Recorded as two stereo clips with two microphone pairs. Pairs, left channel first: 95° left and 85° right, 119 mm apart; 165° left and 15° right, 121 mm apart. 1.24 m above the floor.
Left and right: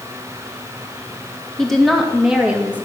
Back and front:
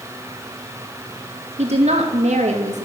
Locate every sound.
1.6 s a woman speaking: 5° left, 2.5 m; by 2.9 s 10° right, 2.0 m